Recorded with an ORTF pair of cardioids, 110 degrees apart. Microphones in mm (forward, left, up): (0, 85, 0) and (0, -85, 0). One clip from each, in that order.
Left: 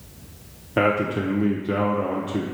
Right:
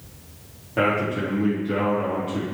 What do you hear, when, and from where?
0.8 s a man speaking: 40° left, 1.0 m